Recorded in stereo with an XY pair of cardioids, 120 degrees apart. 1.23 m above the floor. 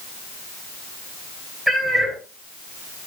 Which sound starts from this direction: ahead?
A cat meowing, at 1.7 s.